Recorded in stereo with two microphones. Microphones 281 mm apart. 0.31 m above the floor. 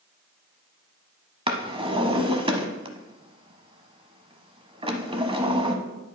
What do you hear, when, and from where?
1.5 s a drawer: 20° right (ahead or behind), 0.8 m